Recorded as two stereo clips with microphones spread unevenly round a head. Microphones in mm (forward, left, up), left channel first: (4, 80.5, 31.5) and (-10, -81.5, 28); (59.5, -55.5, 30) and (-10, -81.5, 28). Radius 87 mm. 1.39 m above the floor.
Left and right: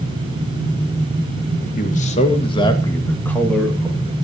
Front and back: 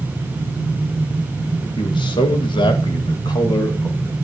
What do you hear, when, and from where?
1.8 s a man speaking: 45° left, 2 m; by 4.1 s 10° right, 3 m